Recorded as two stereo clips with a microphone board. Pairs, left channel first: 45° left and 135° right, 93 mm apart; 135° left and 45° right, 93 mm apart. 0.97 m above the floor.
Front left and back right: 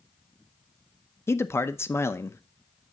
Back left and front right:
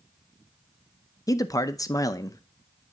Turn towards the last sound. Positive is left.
turn(degrees=100)